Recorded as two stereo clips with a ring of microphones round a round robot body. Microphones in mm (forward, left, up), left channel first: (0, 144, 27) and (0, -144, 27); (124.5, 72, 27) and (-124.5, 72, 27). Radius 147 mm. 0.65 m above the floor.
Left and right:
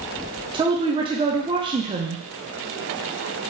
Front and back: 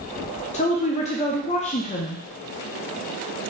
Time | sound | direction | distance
0.5 | a woman speaking | 30° right | 0.6 m